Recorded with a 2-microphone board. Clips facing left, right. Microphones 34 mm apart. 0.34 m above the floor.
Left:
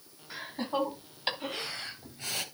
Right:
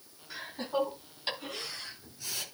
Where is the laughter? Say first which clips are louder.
Left 1 dB; 20° left (ahead or behind), 3.5 m; by 2.5 s 50° left (ahead or behind), 2 m.